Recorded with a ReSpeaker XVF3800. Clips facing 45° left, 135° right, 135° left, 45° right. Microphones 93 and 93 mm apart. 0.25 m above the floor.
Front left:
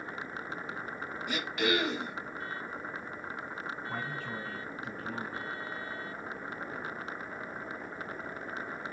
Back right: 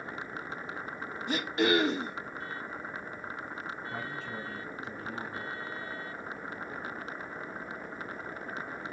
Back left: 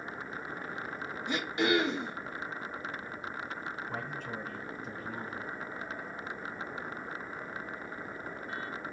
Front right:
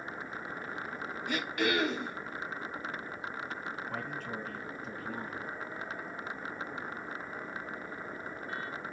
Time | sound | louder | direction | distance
1.3 | throat clearing | back right 4 dB, back left 2 dB | 170° right | 0.8 m
3.9 | a man speaking | front left 1 dB, even | 60° left | 2 m